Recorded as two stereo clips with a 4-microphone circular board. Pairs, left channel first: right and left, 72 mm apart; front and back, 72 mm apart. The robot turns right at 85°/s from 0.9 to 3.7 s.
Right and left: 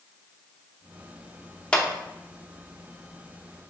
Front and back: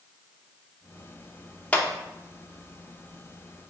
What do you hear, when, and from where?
1.7 s a clap: 40° right, 0.7 m; by 1.9 s 25° right, 0.7 m